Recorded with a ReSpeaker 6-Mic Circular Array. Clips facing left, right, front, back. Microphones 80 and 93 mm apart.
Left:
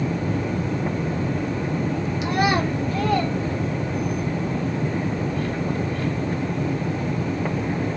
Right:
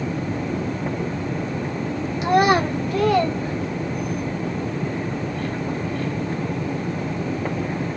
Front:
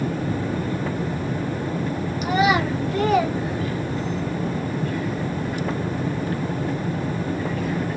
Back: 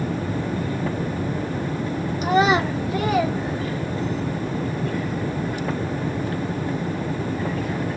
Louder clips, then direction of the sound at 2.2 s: Right 5 dB, back 1 dB; 130° right.